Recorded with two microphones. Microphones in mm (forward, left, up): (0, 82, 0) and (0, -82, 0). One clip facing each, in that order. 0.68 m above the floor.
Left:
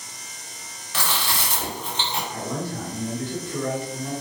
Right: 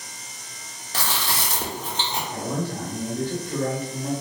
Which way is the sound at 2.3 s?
40° right (ahead or behind).